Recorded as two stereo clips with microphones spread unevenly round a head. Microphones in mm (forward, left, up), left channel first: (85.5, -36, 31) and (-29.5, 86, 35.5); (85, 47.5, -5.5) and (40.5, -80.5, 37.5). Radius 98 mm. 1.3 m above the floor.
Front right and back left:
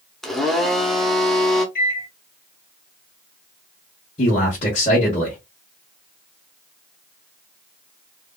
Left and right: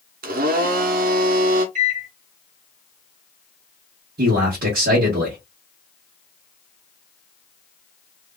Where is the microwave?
95° right, 1.4 m.